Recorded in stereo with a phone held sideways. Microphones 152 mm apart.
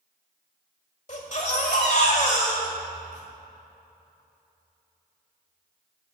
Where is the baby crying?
50° left (ahead or behind), 1.6 m.